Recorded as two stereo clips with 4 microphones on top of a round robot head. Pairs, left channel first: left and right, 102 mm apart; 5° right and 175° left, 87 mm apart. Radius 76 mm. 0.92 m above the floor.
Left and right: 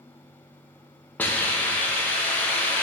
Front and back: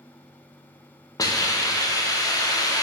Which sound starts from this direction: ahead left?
A hiss, at 1.2 s.